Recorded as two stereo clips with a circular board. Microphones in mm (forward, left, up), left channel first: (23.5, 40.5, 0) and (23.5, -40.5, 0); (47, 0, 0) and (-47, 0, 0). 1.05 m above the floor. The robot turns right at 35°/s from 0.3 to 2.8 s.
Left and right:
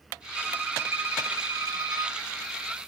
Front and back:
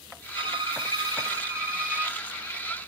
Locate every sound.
0.3 s a violin: 160° right, 2 m; by 2.2 s 100° right, 2 m